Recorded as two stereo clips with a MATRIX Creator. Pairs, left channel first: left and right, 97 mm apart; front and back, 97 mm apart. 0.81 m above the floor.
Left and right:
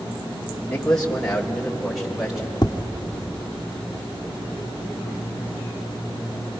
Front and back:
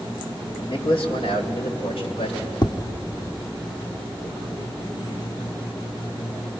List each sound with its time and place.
0.7 s a man speaking: 10° left, 2 m; by 2.5 s 5° right, 4 m
2.6 s tapping: 45° left, 0.7 m